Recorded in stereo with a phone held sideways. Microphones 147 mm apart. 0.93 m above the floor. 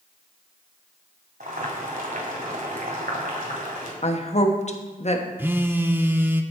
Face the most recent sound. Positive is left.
turn(degrees=-15)  # may be behind; listen again after turning